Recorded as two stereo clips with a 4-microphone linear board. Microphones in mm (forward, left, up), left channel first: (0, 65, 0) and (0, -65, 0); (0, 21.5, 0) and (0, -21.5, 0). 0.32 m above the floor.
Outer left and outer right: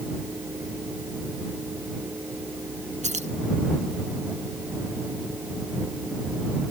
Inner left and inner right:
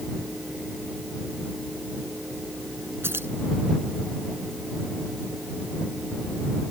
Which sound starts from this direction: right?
Keys jangling, at 3.0 s.